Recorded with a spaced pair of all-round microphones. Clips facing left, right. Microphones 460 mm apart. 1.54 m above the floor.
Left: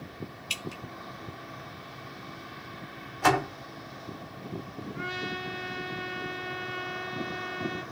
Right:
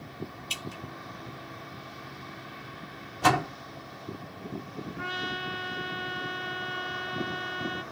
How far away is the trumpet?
About 1.4 m.